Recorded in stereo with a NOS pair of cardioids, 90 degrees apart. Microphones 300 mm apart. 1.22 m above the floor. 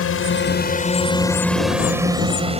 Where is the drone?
50° left; by 2.6 s 20° right.